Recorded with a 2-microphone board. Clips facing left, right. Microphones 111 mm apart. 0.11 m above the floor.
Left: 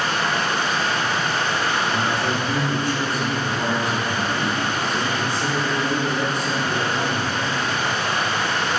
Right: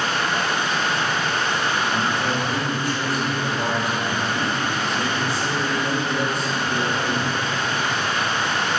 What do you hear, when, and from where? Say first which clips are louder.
0.0 s running water: even; 35° left (ahead or behind), 1.0 m
1.9 s a man speaking: even; 5° right (ahead or behind), 1.6 m